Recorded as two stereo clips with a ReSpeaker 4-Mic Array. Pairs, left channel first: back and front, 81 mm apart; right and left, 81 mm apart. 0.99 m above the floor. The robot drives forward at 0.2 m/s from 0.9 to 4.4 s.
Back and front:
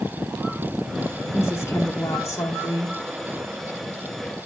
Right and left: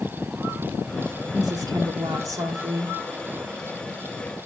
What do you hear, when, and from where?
1.3 s a woman speaking: 125° left, 2.5 m; by 3.0 s 130° left, 2.5 m